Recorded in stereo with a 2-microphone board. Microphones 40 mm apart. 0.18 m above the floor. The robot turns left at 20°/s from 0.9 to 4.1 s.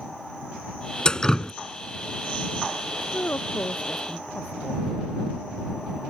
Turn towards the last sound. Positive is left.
turn(degrees=40)  # may be behind; listen again after turning